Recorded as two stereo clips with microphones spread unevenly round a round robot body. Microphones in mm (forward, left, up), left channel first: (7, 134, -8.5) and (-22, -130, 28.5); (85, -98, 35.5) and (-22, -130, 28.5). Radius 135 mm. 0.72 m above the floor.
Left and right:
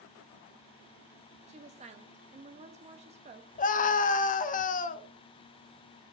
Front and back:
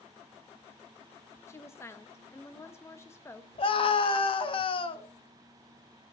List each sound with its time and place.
1.5 s a woman speaking: 35° right, 0.6 m
3.6 s a scream: 40° left, 0.8 m